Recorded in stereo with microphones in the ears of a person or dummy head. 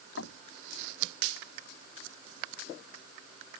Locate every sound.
0.2 s knocking: 70° left (ahead or behind)